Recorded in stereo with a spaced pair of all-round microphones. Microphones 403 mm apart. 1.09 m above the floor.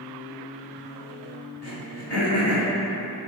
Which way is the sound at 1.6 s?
75° left (ahead or behind).